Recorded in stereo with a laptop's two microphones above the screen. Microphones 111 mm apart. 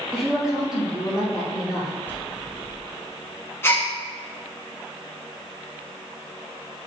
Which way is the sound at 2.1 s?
20° left (ahead or behind).